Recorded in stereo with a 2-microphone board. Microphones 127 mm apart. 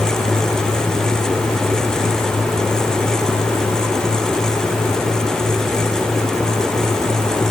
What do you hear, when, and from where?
Only background noise.